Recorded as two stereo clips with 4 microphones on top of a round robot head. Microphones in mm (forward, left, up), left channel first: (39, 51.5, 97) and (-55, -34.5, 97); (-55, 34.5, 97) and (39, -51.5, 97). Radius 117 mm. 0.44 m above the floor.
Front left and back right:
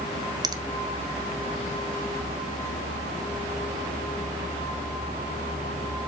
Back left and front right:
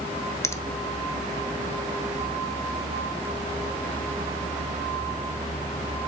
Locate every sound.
0.4 s a finger snap: 170° right, 0.5 m